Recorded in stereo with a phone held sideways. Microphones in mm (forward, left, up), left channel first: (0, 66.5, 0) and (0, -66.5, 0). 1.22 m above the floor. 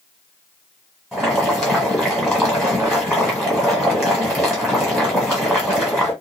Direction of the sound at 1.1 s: Centre (ahead or behind).